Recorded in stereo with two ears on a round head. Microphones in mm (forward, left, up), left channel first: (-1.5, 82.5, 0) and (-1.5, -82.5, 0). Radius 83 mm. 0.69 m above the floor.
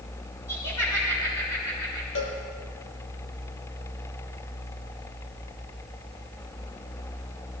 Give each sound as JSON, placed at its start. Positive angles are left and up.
{"t": 0.5, "sound": "laughter", "side_deg": 20, "distance_m": 8.5}
{"t": 2.1, "sound": "a cowbell", "side_deg": 75, "distance_m": 3.5}